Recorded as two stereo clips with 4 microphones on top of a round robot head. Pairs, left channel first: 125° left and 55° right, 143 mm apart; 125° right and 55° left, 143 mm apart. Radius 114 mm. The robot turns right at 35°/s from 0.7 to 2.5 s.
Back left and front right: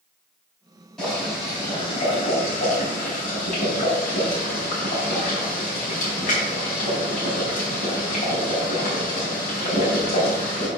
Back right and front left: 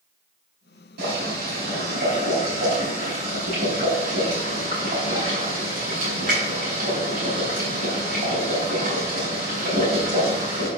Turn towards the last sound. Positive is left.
turn(degrees=95)